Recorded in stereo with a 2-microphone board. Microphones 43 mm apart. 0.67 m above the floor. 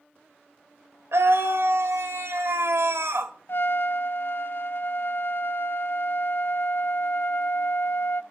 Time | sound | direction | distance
1.1 | a scream | 75° right (ahead or behind) | 3 m
3.5 | a trumpet | 55° left (ahead or behind) | 0.6 m